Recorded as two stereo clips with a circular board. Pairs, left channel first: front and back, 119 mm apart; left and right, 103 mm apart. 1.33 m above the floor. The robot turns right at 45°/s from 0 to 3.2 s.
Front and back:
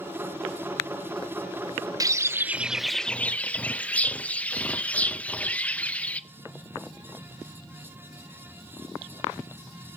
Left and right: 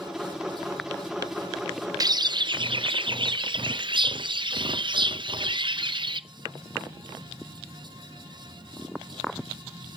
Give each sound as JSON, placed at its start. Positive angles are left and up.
{"t": 2.0, "sound": "a bird", "azimuth_deg": -130, "distance_m": 0.6}